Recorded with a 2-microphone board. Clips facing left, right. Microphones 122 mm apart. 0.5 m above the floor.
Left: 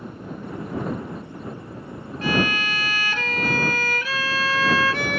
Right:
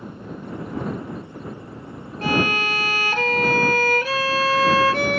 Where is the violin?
40° right (ahead or behind).